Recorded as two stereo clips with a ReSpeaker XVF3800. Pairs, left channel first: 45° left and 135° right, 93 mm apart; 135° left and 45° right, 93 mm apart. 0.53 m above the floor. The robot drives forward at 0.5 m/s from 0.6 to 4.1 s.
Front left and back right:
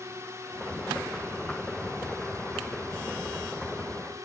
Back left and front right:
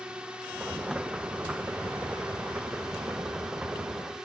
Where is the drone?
115° right; by 4.3 s 120° right.